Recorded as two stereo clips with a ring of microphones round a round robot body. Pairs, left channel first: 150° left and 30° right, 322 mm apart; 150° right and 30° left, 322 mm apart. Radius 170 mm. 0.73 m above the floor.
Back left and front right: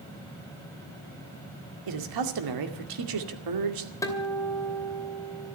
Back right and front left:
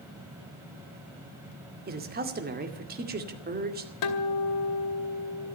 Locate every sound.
1.9 s a man speaking: 30° right, 2 m
4.0 s a guitar: 130° right, 2.5 m